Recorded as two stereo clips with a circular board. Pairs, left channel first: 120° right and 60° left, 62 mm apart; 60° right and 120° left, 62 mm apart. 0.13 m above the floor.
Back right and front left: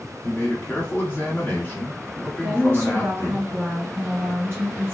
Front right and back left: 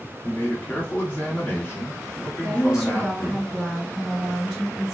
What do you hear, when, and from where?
0.2 s a man speaking: 95° right, 1.3 m
2.4 s a woman speaking: 50° left, 1.9 m